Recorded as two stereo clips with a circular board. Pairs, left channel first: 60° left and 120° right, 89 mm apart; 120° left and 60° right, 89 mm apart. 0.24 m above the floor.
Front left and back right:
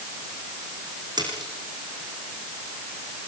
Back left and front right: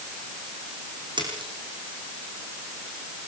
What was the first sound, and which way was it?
A splash, 85° right.